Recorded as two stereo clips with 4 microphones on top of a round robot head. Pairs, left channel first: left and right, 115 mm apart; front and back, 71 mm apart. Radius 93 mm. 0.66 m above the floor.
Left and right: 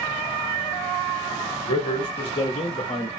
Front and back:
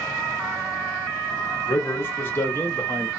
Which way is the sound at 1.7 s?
50° left.